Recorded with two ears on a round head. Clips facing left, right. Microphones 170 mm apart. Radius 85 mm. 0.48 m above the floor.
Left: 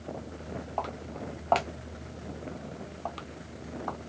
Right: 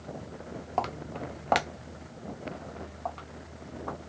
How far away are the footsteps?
About 0.7 m.